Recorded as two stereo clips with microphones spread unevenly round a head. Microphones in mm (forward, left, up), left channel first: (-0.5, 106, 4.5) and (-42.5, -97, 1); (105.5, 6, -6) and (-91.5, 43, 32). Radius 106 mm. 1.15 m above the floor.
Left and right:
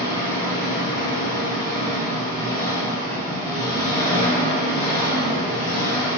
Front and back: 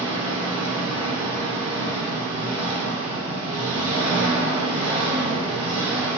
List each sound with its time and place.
0.0 s an engine running: 155° left, 0.9 m